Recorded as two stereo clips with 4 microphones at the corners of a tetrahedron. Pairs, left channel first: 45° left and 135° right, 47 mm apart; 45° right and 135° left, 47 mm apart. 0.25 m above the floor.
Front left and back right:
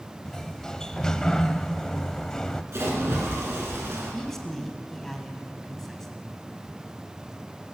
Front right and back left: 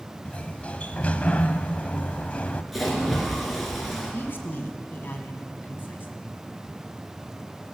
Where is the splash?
135° right, 2.5 m.